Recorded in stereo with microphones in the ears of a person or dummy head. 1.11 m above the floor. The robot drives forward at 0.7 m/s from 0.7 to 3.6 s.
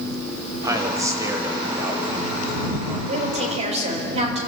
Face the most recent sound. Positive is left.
turn(degrees=-35)  # may be behind; listen again after turning